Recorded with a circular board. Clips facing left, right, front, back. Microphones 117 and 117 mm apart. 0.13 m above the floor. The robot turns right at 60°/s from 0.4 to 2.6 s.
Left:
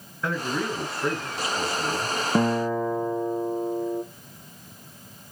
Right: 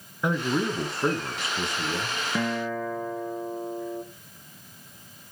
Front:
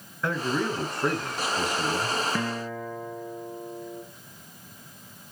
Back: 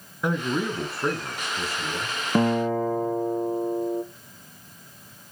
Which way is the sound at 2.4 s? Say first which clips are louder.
Left 6 dB, back 9 dB; 140° left.